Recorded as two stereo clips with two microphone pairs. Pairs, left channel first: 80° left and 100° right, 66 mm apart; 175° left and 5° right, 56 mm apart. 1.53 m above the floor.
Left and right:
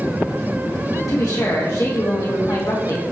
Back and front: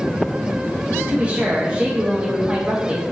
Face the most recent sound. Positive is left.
turn(degrees=65)